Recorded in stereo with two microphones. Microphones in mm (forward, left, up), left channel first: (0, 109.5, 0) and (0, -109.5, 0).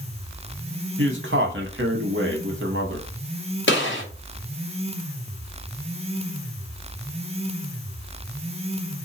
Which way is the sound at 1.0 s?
60° right (ahead or behind).